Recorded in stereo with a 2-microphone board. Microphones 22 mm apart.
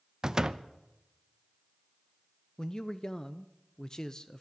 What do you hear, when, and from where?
0.2 s a door slam: 30° right (ahead or behind), 0.6 m
2.6 s a man speaking: 30° left (ahead or behind), 0.5 m